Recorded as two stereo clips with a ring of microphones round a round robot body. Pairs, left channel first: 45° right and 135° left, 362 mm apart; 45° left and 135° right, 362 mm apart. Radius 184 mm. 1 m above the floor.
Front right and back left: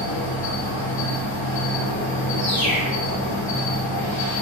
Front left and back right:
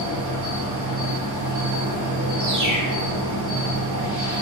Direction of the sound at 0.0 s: 100° right.